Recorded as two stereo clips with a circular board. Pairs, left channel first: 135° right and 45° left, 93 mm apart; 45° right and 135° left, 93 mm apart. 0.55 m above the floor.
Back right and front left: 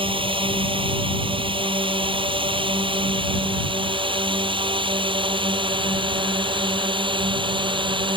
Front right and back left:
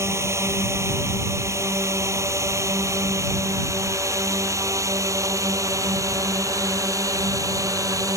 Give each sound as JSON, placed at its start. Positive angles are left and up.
{"t": 0.0, "sound": "a drone", "azimuth_deg": 75}